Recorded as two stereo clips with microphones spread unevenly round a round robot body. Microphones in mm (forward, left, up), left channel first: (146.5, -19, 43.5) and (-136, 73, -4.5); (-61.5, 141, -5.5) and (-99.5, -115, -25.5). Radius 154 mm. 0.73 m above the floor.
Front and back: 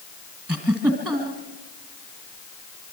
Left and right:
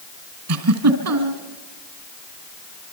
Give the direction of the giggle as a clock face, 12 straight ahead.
4 o'clock.